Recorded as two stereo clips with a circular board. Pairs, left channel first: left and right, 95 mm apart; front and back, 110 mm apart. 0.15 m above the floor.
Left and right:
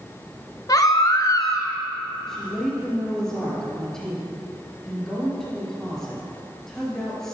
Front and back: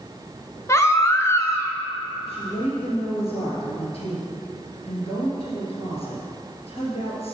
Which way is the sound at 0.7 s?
55° left.